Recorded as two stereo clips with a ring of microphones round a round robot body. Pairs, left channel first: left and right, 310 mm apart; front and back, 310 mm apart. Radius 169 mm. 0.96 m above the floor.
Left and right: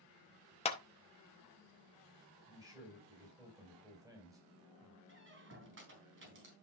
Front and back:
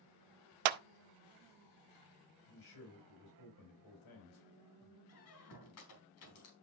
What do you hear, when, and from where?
0.7 s a clap: 165° left, 0.6 m
2.5 s a man speaking: 10° right, 6 m
5.1 s a squeak: 40° right, 3.5 m